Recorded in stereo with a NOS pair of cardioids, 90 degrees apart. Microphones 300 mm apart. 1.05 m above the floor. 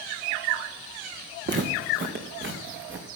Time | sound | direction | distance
1.5 | footsteps | 40° right | 4 m